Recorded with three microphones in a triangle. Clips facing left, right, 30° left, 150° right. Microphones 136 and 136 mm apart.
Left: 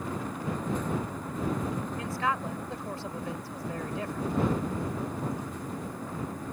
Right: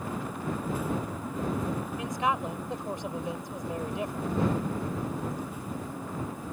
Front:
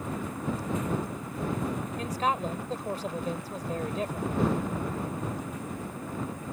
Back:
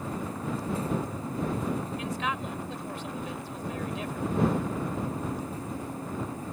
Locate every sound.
2.0 s a man speaking: 20° right